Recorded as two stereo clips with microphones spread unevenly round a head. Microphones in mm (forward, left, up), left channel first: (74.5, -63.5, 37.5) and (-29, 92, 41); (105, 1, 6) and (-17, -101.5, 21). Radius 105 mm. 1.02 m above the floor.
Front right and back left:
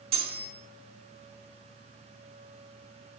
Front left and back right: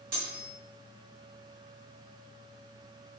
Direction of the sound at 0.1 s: 175° left.